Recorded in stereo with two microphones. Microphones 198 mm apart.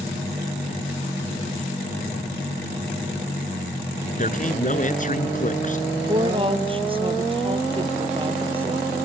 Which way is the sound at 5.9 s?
25° right (ahead or behind).